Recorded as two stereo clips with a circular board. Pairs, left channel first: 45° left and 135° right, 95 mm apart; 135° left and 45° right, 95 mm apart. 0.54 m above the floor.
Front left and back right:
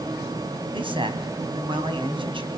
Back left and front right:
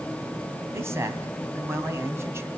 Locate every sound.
0.7 s a man speaking: 110° right, 3.5 m